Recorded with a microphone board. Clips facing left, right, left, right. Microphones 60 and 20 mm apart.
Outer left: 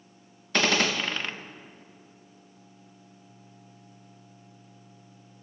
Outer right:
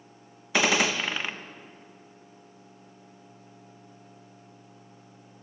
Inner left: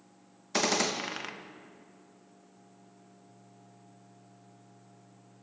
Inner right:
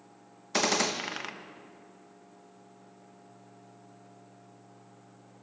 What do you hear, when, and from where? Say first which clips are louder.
0.5 s a gunshot: outer right 1 dB, inner right 1 dB; 10° right (ahead or behind), 0.7 m